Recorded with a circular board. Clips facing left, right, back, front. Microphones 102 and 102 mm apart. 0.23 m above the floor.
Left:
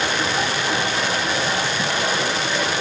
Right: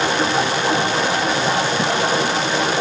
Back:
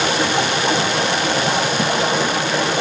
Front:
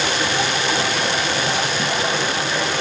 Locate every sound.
0.0 s running water: 150° right, 4 m